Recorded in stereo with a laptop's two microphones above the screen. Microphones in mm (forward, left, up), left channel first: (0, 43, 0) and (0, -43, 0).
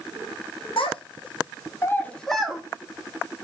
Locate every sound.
0.8 s a child speaking: 85° left, 0.7 m; by 2.6 s 5° right (ahead or behind), 0.7 m